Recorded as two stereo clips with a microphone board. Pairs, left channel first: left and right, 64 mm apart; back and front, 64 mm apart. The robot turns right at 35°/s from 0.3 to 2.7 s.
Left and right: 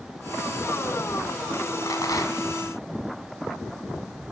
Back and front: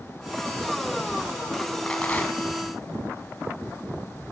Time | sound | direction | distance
1.9 | a rattle | 105° left | 1.5 m